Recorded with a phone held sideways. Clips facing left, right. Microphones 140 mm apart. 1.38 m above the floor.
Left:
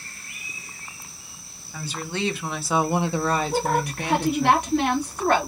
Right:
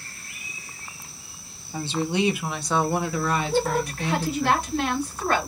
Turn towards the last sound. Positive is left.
turn(degrees=65)  # may be behind; listen again after turning